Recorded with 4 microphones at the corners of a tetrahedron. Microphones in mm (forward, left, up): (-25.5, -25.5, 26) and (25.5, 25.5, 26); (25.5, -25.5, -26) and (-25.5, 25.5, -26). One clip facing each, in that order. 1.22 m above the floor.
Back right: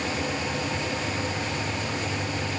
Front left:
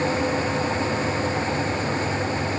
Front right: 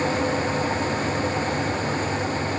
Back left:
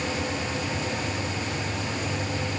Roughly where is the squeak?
I don't hear a squeak.